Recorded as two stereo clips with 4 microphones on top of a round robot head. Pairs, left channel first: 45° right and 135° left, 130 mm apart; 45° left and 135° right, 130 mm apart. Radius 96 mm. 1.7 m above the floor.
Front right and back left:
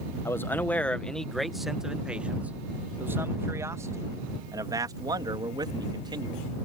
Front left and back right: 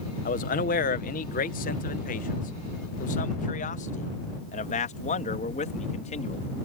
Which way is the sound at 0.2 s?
30° left.